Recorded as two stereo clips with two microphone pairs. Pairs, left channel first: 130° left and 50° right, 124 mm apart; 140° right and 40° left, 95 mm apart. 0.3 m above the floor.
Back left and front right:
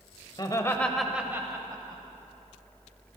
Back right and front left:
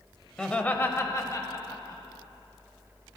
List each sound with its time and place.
0.4 s laughter: 140° left, 1.0 m; by 2.0 s 95° right, 1.5 m